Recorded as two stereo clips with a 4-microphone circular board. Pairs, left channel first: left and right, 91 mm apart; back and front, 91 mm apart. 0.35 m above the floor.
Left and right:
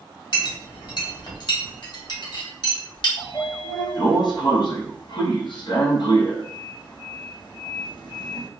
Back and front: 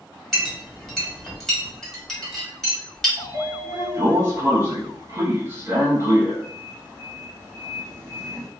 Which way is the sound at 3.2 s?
65° left.